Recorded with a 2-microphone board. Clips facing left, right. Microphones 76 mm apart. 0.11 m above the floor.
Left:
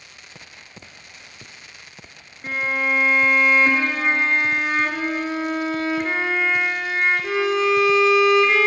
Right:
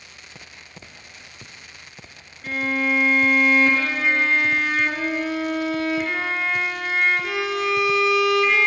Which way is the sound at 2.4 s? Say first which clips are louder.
Even; 35° left (ahead or behind).